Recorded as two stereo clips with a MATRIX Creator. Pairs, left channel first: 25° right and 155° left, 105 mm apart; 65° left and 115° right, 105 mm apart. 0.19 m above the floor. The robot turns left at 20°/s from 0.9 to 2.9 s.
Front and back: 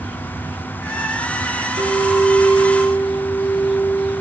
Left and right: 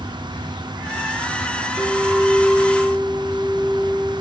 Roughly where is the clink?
Behind.